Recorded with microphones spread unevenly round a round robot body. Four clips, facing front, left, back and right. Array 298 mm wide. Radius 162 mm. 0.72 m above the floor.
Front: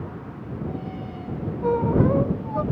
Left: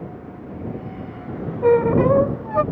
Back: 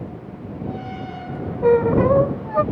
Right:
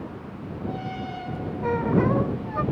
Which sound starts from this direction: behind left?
A squeak, at 1.6 s.